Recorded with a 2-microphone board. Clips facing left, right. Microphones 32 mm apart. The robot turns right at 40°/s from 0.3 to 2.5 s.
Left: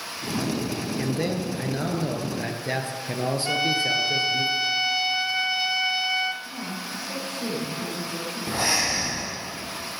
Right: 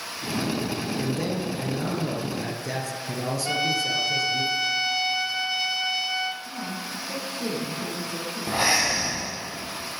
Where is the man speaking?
45° left, 1.8 m; by 4.5 s 105° left, 1.8 m.